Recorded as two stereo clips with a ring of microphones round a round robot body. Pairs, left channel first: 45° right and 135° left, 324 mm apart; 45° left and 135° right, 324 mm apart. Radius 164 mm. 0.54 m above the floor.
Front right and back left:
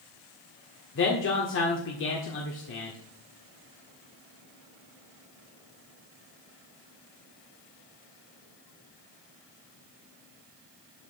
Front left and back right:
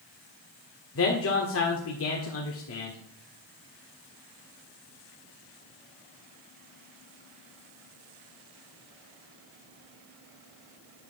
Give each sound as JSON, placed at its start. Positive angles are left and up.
{"t": 0.9, "sound": "a man speaking", "azimuth_deg": 5, "distance_m": 1.6}